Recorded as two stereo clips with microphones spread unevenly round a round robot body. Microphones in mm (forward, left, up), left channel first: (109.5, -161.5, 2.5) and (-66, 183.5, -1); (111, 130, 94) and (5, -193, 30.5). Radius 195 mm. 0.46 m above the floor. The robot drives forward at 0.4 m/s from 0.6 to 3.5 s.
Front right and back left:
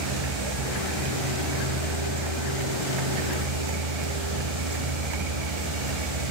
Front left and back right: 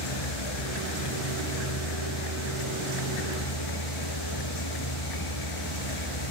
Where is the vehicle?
95° left; by 6.3 s 105° left.